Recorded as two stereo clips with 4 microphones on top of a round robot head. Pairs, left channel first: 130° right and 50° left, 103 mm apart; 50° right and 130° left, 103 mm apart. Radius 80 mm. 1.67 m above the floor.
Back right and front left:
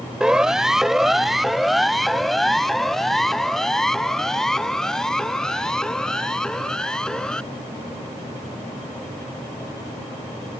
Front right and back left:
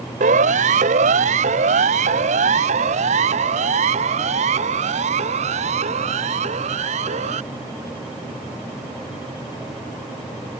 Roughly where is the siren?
Behind left.